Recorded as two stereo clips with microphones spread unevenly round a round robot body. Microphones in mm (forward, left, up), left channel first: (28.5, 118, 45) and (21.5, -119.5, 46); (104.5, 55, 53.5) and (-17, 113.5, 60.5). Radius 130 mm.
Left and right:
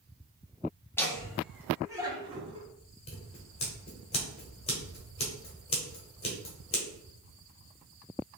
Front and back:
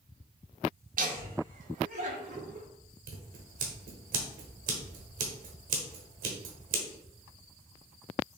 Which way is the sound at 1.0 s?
170° left.